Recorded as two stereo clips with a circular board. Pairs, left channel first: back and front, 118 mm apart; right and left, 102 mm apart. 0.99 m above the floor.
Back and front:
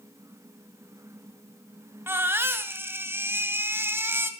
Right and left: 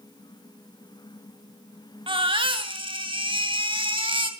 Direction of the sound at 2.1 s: 70° left.